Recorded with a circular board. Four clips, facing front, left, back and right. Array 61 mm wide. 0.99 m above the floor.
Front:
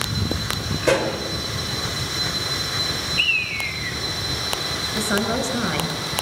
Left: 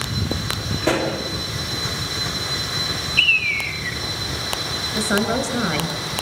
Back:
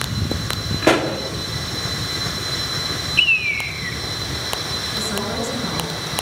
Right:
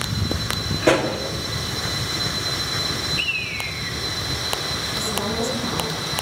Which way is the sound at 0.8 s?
175° right.